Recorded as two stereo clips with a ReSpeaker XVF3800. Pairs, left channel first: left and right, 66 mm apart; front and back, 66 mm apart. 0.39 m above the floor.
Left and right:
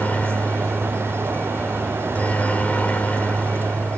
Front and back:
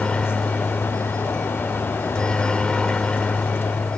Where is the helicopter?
60° left.